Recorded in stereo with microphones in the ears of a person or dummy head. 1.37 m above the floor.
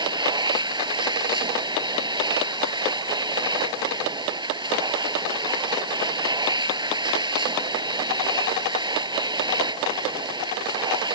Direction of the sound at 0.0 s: 25° right (ahead or behind).